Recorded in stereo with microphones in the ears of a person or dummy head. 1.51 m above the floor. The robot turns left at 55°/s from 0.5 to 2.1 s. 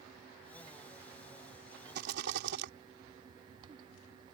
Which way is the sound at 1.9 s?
60° right (ahead or behind).